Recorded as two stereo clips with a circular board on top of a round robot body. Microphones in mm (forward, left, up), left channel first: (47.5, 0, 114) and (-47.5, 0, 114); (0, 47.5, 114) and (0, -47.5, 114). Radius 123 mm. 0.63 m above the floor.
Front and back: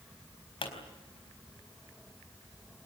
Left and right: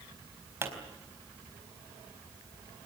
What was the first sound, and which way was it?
A pop, 25° right.